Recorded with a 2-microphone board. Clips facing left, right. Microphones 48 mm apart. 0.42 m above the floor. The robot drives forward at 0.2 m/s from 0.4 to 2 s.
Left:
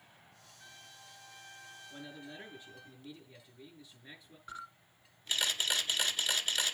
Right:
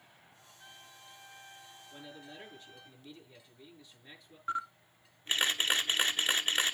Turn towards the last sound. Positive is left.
turn(degrees=-35)  # may be behind; listen again after turning